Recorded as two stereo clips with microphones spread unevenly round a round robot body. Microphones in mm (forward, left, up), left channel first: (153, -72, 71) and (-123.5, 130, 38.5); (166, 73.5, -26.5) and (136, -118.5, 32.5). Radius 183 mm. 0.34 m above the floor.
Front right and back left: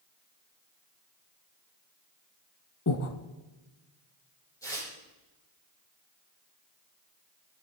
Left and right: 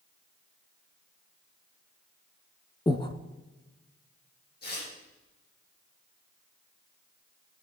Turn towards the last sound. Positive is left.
turn(degrees=45)